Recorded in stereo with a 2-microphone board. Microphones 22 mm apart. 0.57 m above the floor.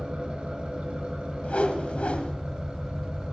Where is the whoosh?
85° left, 1.5 m.